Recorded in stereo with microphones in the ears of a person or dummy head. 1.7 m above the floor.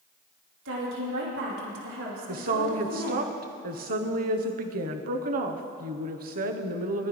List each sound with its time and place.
0.7 s a woman speaking: 75° right (ahead or behind), 3 m
2.3 s a woman speaking: 50° right (ahead or behind), 0.7 m